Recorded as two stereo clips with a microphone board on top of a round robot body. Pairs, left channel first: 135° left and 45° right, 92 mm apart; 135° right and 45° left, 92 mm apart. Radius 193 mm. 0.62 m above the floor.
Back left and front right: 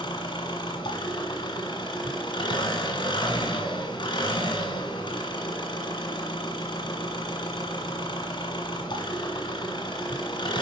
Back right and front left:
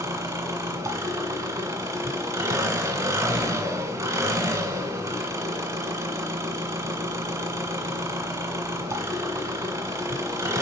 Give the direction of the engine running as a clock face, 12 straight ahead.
9 o'clock.